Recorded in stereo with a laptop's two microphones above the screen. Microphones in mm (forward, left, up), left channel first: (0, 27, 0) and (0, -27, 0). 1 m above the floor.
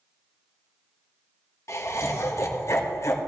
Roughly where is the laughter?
Left.